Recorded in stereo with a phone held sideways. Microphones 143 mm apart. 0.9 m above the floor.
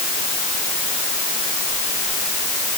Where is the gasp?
I don't hear a gasp.